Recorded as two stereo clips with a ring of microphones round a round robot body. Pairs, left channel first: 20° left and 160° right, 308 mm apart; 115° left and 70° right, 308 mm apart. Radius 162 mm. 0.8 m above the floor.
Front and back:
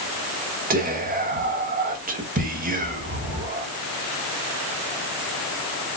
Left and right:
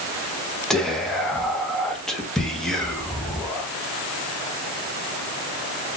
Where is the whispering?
160° right, 1.1 m.